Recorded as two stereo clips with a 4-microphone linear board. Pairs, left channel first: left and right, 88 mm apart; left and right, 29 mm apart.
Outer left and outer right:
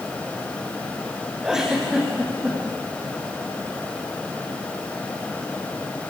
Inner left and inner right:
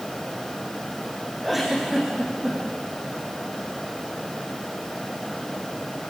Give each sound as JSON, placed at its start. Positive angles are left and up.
{"t": 1.4, "sound": "a giggle", "side_deg": -5, "distance_m": 5.5}